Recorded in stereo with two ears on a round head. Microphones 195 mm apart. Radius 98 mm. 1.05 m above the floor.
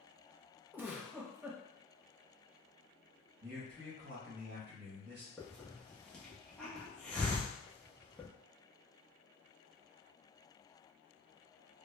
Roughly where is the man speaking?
Right.